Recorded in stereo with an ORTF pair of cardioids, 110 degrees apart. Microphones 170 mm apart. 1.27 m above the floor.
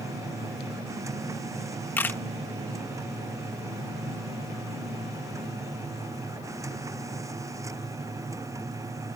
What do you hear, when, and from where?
0.0 s a machine running: 20° right
2.0 s a camera shutter: 10° left